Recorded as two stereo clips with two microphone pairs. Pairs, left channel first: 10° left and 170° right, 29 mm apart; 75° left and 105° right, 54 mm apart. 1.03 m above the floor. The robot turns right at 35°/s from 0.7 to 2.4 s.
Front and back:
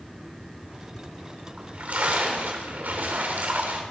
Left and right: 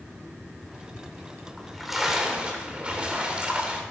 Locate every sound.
1.6 s a splash: 155° left, 3.5 m; by 3.8 s 175° right, 3.5 m